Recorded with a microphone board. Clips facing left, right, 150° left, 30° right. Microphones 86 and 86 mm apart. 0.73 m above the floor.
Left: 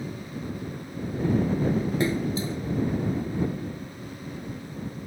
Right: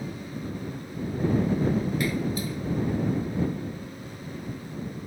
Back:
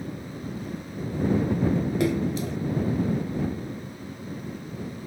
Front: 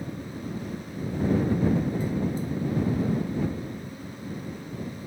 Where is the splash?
155° left.